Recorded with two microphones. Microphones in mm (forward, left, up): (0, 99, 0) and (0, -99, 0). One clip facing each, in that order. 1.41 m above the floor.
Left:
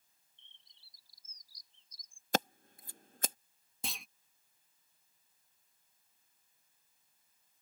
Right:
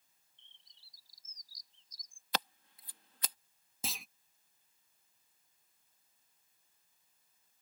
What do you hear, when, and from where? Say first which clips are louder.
0.4 s a bird: left 1 dB; 60° left (ahead or behind)
2.3 s scissors: left 7 dB; 45° left (ahead or behind)
3.8 s a clunk: right 1 dB; centre (ahead or behind)